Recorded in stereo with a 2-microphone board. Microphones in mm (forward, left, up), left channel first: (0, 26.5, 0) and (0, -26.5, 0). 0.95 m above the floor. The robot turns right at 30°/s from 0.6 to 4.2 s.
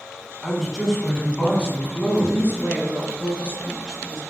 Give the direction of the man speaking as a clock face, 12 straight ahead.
12 o'clock.